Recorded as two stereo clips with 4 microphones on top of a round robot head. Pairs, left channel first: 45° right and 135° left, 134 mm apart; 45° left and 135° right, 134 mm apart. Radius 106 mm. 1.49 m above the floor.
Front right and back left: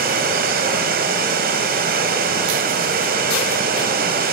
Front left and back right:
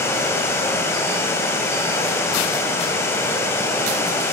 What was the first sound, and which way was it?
Running water, 120° left.